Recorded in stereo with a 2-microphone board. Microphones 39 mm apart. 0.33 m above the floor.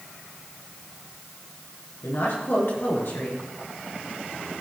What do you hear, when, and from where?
2.0 s a woman speaking: 60° left (ahead or behind), 4.5 m